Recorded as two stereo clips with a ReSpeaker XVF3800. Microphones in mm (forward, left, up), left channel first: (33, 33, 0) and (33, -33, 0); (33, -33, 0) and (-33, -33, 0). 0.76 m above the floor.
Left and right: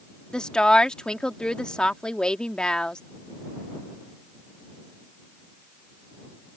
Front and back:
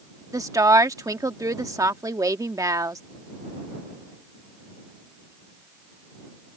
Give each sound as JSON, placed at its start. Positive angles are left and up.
{"t": 0.3, "sound": "a woman speaking", "azimuth_deg": 165}